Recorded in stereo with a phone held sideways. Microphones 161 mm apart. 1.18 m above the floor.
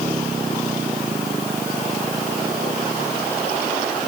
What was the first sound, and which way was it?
Only background noise.